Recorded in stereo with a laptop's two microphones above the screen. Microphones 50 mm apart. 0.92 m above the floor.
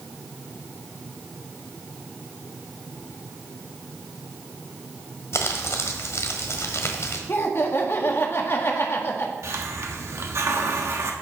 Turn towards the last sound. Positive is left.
turn(degrees=-65)  # may be behind; listen again after turning